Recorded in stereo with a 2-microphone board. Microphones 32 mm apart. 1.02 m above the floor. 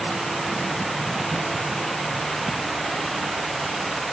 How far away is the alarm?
No alarm in this recording.